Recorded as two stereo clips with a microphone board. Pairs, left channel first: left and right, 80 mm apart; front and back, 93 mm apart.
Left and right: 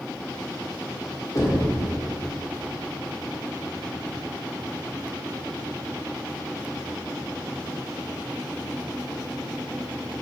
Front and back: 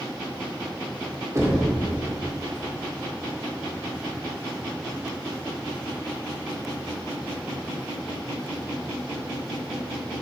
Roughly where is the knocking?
Behind left.